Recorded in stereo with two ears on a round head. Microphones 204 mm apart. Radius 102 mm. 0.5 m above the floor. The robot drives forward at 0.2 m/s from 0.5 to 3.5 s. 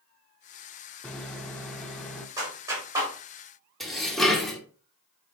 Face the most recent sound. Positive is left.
turn(degrees=0)  # may be behind; listen again after turning